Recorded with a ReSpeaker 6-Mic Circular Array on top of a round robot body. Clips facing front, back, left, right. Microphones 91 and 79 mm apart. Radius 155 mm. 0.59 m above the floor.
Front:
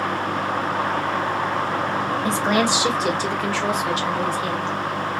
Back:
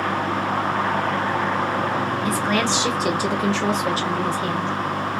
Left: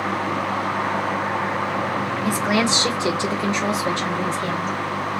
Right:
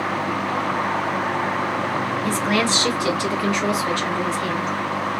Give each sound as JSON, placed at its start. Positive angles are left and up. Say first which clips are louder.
{"t": 2.2, "sound": "a woman speaking", "louder": "front 3 dB, left 2 dB", "azimuth_deg": 25, "distance_m": 0.9}